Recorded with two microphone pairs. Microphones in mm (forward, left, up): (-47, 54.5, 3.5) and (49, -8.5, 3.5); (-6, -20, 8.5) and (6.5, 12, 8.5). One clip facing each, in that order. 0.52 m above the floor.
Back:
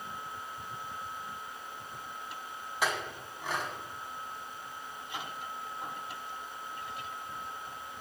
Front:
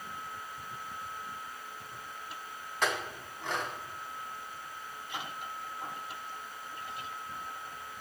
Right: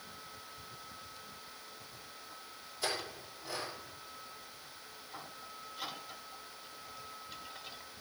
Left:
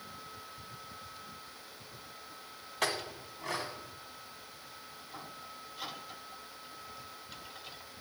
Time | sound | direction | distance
2.8 | a clink | 65° left | 2.5 m